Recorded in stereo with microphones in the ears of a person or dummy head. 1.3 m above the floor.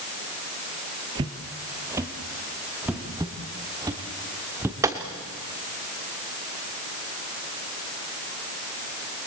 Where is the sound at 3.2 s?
15° right (ahead or behind), 2 m; by 4.7 s 5° right (ahead or behind), 1.6 m.